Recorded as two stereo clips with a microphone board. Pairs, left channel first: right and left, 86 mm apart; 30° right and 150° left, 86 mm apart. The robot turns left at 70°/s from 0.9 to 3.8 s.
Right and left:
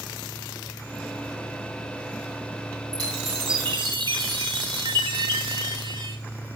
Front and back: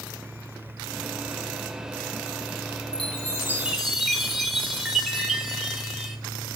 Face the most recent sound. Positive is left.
turn(degrees=65)